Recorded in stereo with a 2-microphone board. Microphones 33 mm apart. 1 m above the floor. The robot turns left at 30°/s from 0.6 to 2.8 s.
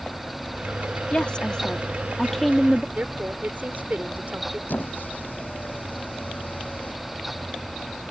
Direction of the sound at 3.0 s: 65° right (ahead or behind).